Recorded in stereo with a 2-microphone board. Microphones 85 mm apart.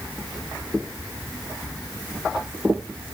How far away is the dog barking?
I don't hear a dog barking.